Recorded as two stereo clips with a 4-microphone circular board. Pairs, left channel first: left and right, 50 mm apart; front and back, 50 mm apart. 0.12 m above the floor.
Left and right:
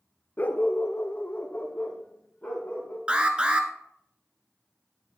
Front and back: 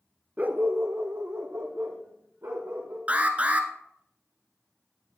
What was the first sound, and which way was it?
A dog barking, 130° left.